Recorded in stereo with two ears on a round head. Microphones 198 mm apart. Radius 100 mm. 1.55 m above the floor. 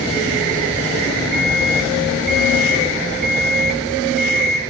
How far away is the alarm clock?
About 2.5 m.